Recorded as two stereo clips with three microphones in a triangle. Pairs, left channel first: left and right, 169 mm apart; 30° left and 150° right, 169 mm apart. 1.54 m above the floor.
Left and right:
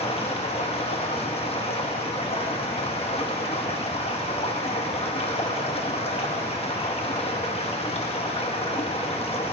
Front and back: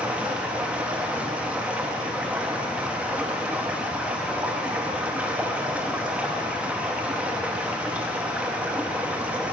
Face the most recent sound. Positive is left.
turn(degrees=130)